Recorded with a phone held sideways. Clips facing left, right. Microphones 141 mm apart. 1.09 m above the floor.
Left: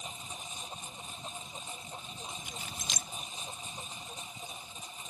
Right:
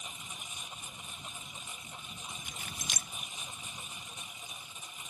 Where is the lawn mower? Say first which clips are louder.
Left 4 dB; 30° left (ahead or behind).